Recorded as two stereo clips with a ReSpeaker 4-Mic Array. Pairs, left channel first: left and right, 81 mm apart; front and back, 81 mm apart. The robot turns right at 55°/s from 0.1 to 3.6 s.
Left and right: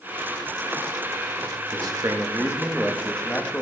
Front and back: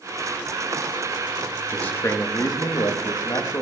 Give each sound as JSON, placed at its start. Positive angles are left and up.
{"t": 1.7, "sound": "a man speaking", "azimuth_deg": -75, "distance_m": 1.0}